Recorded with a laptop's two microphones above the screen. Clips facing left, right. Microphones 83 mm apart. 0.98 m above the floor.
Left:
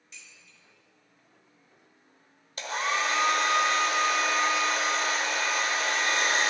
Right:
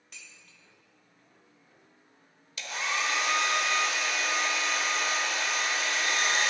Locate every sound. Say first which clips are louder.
0.1 s dishes clattering: right 1 dB; 60° right (ahead or behind), 1.3 m
2.6 s a hair dryer: left 4 dB; 40° left (ahead or behind), 1.0 m